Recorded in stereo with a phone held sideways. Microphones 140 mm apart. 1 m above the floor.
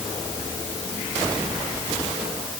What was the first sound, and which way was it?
Only background noise.